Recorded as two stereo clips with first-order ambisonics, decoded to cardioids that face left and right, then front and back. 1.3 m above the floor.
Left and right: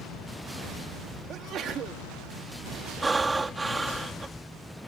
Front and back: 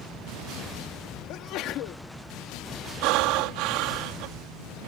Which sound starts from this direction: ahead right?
A sneeze, at 1.3 s.